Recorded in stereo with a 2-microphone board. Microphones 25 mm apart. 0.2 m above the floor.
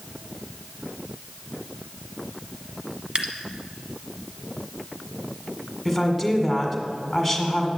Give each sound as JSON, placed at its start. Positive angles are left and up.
{"t": 3.1, "sound": "dripping", "side_deg": -40, "distance_m": 1.0}
{"t": 5.8, "sound": "a woman speaking", "side_deg": 0, "distance_m": 1.9}